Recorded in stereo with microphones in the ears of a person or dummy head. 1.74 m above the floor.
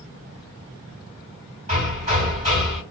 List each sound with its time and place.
1.7 s hammering: 35° right (ahead or behind), 3 m